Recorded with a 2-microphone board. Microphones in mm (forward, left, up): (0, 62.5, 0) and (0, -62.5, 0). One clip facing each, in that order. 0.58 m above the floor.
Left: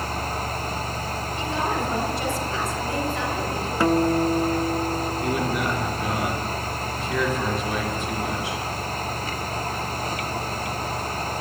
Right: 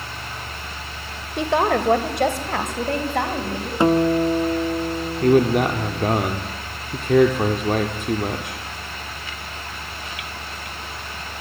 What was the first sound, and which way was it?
A woman speaking, 70° right (ahead or behind).